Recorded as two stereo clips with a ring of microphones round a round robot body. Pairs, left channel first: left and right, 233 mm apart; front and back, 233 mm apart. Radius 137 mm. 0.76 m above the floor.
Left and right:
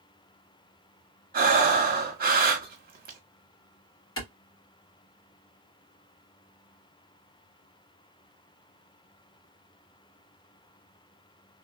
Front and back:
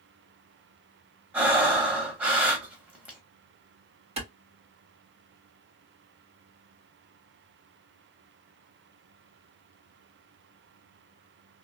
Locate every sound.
1.3 s breathing: 100° right, 1.1 m
4.2 s a clap: 115° left, 1.6 m